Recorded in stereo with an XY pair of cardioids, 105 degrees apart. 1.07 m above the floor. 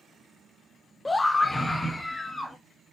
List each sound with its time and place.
1.1 s a scream: 20° left, 0.5 m